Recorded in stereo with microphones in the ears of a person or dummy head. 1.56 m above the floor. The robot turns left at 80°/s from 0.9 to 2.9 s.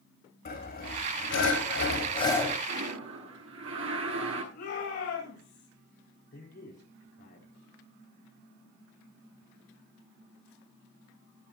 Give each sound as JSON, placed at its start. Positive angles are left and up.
{"t": 0.5, "sound": "sawing", "azimuth_deg": 130, "distance_m": 4.0}
{"t": 2.7, "sound": "a toilet flushing", "side_deg": -75, "distance_m": 10.0}
{"t": 4.5, "sound": "a shout", "side_deg": 50, "distance_m": 8.5}
{"t": 6.3, "sound": "a man speaking", "side_deg": 50, "distance_m": 4.5}